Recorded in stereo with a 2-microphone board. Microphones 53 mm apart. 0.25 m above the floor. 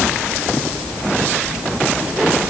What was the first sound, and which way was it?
Only background noise.